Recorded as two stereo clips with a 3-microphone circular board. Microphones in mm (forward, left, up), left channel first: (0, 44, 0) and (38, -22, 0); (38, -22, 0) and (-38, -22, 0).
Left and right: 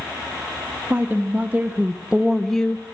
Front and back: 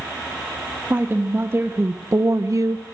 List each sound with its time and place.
0.9 s a woman speaking: 120° right, 2.5 m; by 2.9 s 160° left, 0.7 m